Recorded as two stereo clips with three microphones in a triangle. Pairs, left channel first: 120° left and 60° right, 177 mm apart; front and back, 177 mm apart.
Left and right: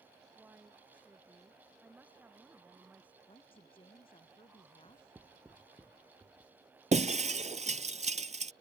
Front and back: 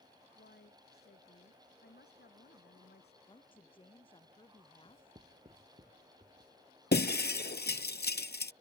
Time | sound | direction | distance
0.3 | a woman speaking | 20° left | ?
3.3 | a woman speaking | 60° left | ?
4.8 | writing | 140° right | ?
6.9 | breaking glass | 15° right | ?